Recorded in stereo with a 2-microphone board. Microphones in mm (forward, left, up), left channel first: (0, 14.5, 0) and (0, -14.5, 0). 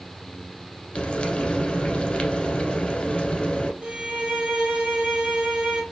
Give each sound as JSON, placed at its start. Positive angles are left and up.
{"t": 0.9, "sound": "frying", "side_deg": 35, "distance_m": 1.1}
{"t": 3.8, "sound": "a violin", "side_deg": -25, "distance_m": 2.0}